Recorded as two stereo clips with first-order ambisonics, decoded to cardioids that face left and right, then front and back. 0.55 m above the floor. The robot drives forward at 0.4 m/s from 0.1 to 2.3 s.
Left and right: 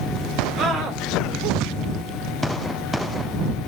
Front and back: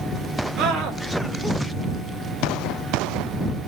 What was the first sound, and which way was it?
A scream, 145° right.